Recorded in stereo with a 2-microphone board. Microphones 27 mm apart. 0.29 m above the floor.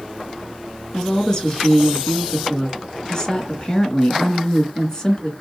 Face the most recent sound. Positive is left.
turn(degrees=30)  # may be behind; listen again after turning